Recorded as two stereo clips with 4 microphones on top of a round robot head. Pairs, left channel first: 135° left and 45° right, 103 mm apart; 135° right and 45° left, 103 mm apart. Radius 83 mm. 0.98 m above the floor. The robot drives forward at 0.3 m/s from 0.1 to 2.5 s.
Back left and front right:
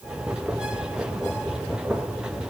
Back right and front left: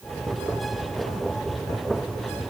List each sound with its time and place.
Only background noise.